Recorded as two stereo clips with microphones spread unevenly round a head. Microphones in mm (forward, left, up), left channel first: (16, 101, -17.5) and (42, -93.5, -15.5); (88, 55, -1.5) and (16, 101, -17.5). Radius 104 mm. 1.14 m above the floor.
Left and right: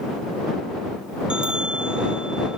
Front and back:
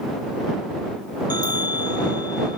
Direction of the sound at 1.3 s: 5° left.